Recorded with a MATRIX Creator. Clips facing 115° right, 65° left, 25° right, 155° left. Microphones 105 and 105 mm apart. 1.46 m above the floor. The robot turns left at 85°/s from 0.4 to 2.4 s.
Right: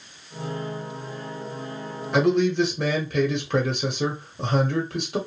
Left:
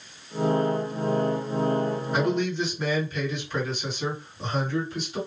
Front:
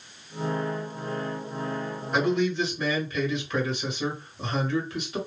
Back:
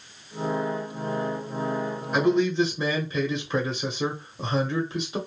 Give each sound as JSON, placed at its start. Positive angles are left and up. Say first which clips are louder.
{"t": 2.1, "sound": "a man speaking", "louder": "right 7 dB, back 3 dB", "azimuth_deg": -115, "distance_m": 1.0}